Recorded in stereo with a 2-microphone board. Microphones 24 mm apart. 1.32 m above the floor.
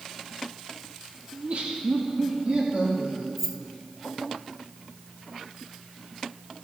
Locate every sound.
1.3 s laughter: 70° right (ahead or behind), 1.5 m; by 3.3 s 50° right (ahead or behind), 3 m
3.4 s keys jangling: 5° right (ahead or behind), 1.4 m